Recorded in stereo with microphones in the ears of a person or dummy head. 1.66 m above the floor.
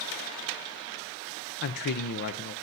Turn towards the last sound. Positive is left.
turn(degrees=50)  # may be behind; listen again after turning